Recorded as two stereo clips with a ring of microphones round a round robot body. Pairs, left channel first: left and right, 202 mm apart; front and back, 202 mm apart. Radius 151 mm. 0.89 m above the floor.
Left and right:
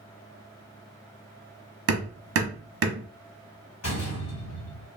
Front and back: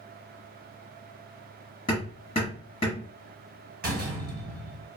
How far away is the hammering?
About 0.8 m.